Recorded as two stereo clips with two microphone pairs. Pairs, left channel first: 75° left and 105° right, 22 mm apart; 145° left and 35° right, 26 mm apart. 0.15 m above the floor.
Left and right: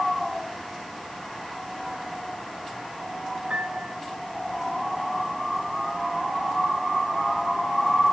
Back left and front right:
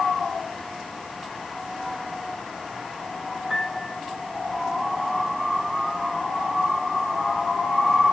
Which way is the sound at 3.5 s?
115° right.